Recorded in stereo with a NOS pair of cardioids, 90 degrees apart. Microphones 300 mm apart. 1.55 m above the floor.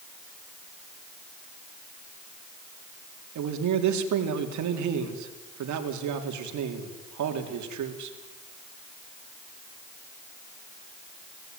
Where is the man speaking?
70° right, 4 m.